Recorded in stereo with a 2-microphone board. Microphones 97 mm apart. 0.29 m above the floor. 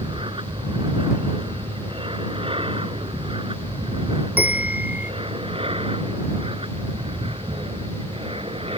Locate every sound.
0.0 s an aircraft: 60° right (ahead or behind); by 8.8 s 70° right (ahead or behind)
4.4 s a bell: 15° right (ahead or behind)